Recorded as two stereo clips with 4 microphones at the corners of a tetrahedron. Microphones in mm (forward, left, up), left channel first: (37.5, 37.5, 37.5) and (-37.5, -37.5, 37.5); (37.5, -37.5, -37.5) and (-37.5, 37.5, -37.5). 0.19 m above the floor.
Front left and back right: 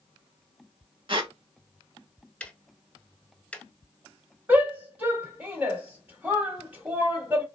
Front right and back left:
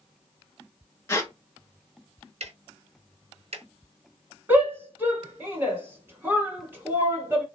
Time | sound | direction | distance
1.1 | a squeak | 105° right | 0.7 m
2.4 | ticking | 125° left | 0.5 m
4.5 | a shout | 170° left | 1.2 m